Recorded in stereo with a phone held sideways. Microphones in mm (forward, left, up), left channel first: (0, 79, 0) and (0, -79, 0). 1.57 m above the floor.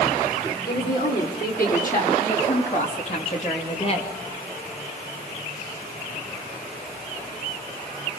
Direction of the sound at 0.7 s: 75° left (ahead or behind).